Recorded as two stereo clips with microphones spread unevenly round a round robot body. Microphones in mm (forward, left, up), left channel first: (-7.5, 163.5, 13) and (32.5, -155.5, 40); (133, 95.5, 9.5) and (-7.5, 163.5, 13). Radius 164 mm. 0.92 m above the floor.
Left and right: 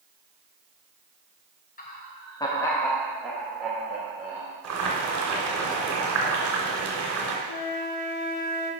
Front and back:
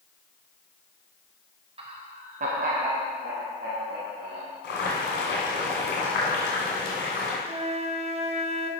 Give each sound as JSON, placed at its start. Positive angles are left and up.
{"t": 1.8, "sound": "laughter", "azimuth_deg": 135, "distance_m": 0.7}
{"t": 4.6, "sound": "boiling", "azimuth_deg": -35, "distance_m": 2.5}
{"t": 7.5, "sound": "a flute", "azimuth_deg": 105, "distance_m": 1.1}